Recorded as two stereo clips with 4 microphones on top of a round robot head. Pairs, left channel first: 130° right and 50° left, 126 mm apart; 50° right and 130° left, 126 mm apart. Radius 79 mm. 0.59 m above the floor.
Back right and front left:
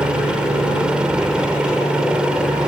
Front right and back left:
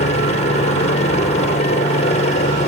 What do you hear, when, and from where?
0.0 s a helicopter: 35° right